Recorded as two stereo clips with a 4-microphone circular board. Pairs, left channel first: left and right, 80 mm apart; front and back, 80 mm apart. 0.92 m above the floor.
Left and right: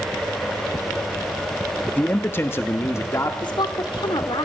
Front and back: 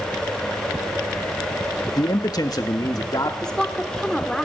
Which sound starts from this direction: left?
A woman speaking, at 3.4 s.